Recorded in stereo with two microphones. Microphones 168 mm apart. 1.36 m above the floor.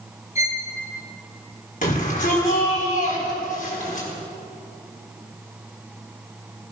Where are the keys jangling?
I don't hear keys jangling.